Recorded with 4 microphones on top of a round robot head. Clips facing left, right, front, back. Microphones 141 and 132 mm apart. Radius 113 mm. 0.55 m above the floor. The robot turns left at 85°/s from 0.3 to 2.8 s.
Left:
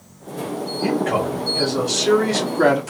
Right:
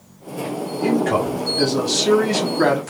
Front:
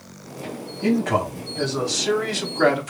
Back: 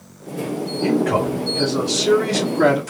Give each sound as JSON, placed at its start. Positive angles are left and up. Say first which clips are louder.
{"t": 0.8, "sound": "a man speaking", "louder": "right 2 dB, back 2 dB", "azimuth_deg": -30, "distance_m": 1.3}